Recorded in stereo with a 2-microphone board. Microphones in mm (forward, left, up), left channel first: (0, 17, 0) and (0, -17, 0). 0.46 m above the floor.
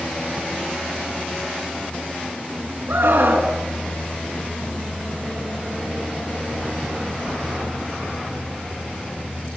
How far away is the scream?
About 4.5 m.